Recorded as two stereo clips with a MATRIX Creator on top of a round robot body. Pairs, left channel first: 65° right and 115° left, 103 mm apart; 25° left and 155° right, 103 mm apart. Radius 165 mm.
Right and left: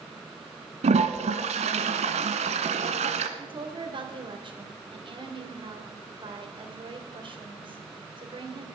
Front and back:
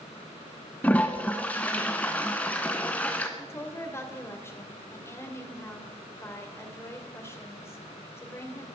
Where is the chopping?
I don't hear chopping.